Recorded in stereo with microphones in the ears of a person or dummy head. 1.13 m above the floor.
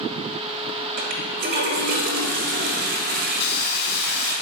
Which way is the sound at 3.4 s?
50° left (ahead or behind).